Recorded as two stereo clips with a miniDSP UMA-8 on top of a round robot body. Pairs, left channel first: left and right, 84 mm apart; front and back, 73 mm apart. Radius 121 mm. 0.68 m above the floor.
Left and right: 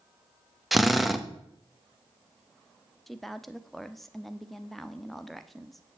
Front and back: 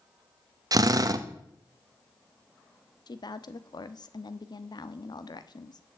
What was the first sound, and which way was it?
A drill, 175° right.